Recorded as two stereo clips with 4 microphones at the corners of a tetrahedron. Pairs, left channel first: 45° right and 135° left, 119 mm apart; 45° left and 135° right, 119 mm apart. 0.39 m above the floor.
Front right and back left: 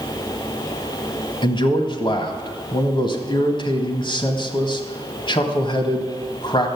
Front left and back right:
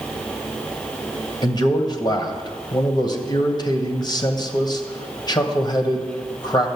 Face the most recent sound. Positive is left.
turn(degrees=-5)